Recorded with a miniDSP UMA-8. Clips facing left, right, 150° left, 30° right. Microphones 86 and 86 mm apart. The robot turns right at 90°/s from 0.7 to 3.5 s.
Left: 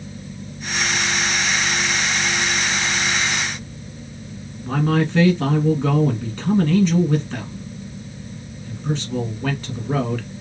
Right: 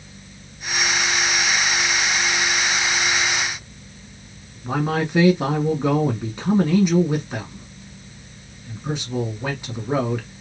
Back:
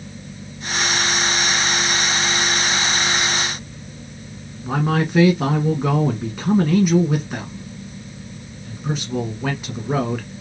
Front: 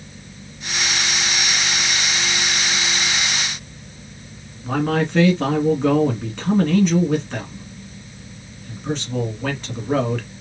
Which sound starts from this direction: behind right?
A man speaking, at 4.6 s.